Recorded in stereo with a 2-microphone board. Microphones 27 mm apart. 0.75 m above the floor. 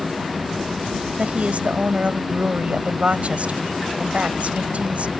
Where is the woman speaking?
55° right (ahead or behind).